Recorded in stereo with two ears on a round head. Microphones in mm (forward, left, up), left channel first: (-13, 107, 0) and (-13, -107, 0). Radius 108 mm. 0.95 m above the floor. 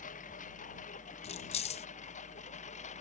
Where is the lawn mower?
35° left (ahead or behind); by 3.0 s 30° left (ahead or behind).